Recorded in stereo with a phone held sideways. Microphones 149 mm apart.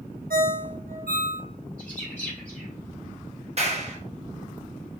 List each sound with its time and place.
0.3 s a ringtone: 75° right (ahead or behind), 0.8 m
1.8 s a bird: 10° left (ahead or behind), 2.5 m
3.6 s a clap: 45° right (ahead or behind), 1.1 m